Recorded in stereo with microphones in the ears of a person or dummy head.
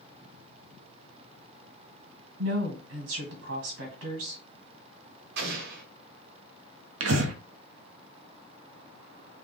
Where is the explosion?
60° right (ahead or behind), 1.6 m.